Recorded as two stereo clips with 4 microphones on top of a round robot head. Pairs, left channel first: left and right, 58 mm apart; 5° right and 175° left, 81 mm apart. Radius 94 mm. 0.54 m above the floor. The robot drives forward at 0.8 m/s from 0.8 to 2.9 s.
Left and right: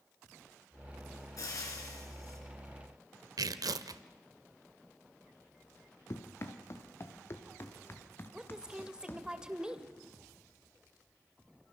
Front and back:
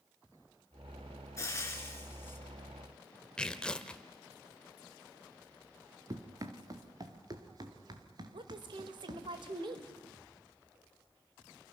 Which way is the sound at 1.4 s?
50° left.